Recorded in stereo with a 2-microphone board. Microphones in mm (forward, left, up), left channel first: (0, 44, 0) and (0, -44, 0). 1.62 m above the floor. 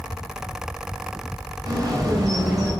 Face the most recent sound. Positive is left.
turn(degrees=-45)  # may be behind; listen again after turning